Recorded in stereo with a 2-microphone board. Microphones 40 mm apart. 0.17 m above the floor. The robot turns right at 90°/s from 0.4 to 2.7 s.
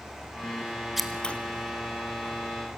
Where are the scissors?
5° right (ahead or behind), 1.8 m; by 1.4 s 30° left (ahead or behind), 1.8 m.